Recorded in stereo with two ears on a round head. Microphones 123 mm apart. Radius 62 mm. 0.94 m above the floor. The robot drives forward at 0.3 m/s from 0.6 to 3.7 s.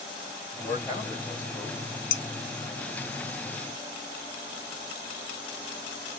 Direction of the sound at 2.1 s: 75° left (ahead or behind).